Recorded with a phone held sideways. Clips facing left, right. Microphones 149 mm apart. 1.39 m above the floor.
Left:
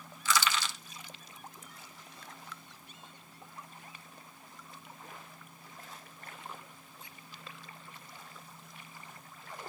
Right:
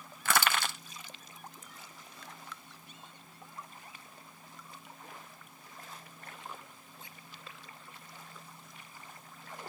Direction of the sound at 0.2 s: 60° right (ahead or behind).